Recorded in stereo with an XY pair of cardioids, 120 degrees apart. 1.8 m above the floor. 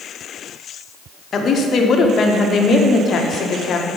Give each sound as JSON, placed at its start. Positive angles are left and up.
{"t": 1.3, "sound": "a woman speaking", "azimuth_deg": 45, "distance_m": 0.9}